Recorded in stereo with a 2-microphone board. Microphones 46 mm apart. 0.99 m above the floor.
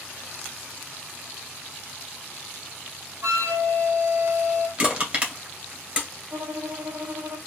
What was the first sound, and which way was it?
A flute, 80° right.